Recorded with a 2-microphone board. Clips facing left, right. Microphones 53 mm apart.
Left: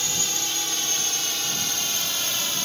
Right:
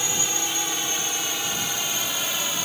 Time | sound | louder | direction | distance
0.0 | a drone | right 2 dB | 15° right (ahead or behind) | ?